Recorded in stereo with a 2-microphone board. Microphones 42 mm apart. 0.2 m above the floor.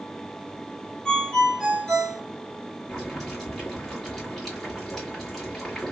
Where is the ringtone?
10° left (ahead or behind), 3 m.